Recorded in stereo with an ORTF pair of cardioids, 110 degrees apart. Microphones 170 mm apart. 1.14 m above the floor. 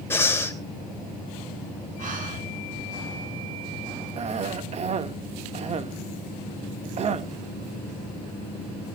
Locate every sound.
0.1 s breathing: 15° left, 3 m
2.0 s breathing: 55° right, 7 m
4.2 s a cough: 45° right, 1.8 m